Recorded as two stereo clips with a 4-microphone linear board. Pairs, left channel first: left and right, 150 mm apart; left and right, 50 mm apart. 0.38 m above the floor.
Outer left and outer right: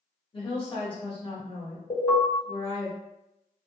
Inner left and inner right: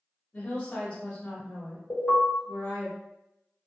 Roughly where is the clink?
I don't hear a clink.